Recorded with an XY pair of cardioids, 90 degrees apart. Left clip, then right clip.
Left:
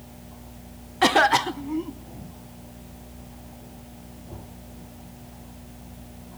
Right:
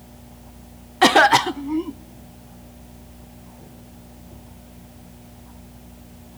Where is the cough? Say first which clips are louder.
Right 5 dB; 40° right, 0.6 m.